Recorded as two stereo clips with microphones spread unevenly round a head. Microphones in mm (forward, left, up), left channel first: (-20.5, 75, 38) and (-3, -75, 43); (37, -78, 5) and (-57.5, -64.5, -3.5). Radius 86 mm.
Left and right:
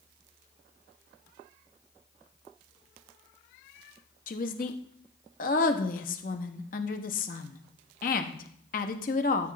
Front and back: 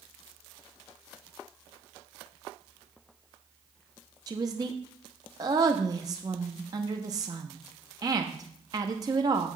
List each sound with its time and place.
4.3 s a woman speaking: 115° left, 0.8 m